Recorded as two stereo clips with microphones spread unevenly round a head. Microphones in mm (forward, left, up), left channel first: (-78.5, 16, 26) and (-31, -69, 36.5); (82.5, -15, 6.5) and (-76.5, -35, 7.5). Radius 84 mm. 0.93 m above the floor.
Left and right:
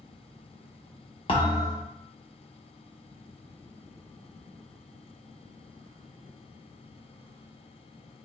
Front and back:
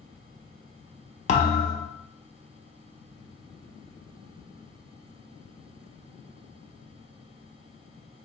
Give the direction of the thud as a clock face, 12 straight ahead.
10 o'clock.